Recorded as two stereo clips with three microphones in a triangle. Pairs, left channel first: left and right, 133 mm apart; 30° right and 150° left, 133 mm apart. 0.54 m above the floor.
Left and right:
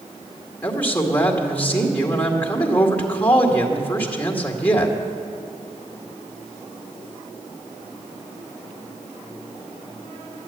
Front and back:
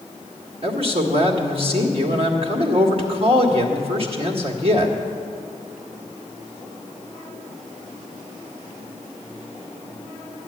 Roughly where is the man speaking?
Behind.